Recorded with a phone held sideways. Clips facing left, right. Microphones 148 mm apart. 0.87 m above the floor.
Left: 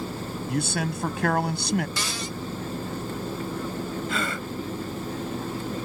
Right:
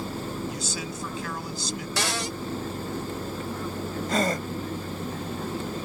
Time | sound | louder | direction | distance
0.5 | a man speaking | left 6 dB | 60° left (ahead or behind) | ?
2.0 | a cupboard door | right 3 dB | 75° right (ahead or behind) | ?
4.1 | a gasp | right 4 dB | 40° right (ahead or behind) | ?